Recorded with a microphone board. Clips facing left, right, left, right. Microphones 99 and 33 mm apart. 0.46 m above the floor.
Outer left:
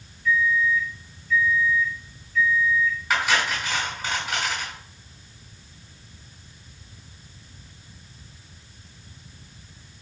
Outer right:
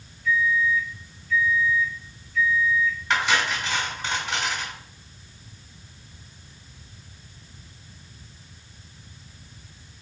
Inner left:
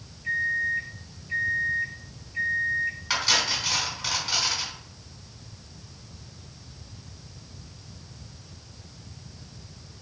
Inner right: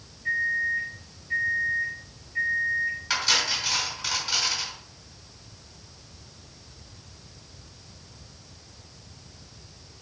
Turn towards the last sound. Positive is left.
turn(degrees=5)  # may be behind; listen again after turning